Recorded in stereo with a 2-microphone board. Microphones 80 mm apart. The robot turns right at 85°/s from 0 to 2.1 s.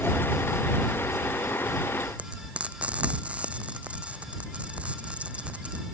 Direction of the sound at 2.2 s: 15° right (ahead or behind).